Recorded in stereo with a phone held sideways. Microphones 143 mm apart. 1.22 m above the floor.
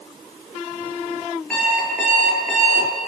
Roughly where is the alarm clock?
Centre.